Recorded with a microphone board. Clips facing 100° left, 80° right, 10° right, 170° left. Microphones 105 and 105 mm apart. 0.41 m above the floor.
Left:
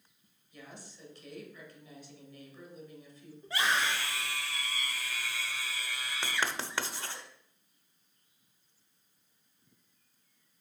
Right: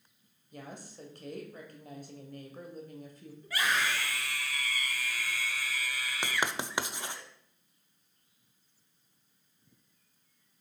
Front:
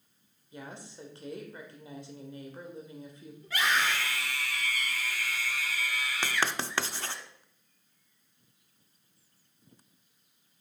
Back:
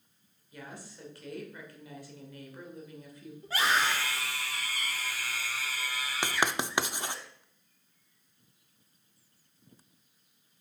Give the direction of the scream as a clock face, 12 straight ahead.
7 o'clock.